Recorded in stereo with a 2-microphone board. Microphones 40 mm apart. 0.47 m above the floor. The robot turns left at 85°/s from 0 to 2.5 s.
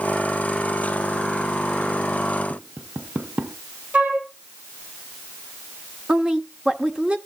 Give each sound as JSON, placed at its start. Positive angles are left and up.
{"t": 2.5, "sound": "tapping", "side_deg": -55, "distance_m": 1.2}
{"t": 3.9, "sound": "a flute", "side_deg": -40, "distance_m": 5.5}
{"t": 6.1, "sound": "a woman speaking", "side_deg": -25, "distance_m": 1.3}